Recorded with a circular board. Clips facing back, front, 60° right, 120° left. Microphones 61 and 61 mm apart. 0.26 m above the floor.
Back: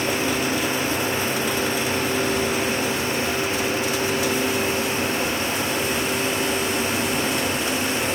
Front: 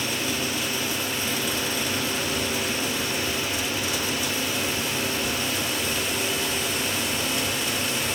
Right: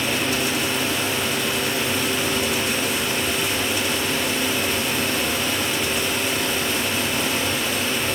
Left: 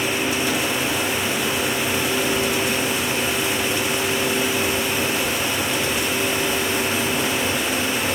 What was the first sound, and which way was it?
Only background noise.